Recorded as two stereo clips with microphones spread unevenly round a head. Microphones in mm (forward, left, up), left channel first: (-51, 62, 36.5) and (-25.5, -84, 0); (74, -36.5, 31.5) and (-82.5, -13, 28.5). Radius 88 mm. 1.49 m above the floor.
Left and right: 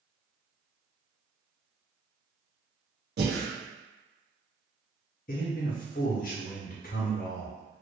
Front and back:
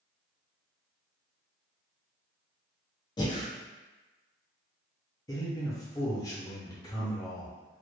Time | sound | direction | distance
3.2 | breathing | 75° right | 0.7 m
5.3 | a man speaking | 60° left | 0.5 m